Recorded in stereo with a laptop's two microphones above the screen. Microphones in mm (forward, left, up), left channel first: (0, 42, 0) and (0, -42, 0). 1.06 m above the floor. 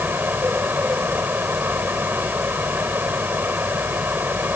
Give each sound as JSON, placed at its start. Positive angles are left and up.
{"t": 0.0, "sound": "a fan", "side_deg": -25}